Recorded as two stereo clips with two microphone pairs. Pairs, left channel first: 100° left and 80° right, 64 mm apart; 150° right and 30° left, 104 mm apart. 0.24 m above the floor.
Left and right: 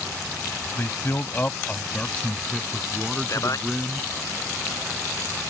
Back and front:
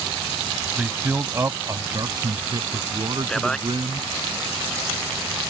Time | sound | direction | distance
0.8 | a man speaking | 100° left | ?
3.3 | a man speaking | 125° left | ?